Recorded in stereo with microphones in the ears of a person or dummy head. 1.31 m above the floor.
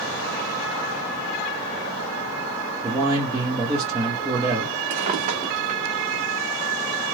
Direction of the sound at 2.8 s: 20° right (ahead or behind).